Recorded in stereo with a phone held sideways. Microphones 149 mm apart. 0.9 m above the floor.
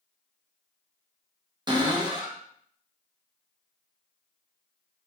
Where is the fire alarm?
No fire alarm in this recording.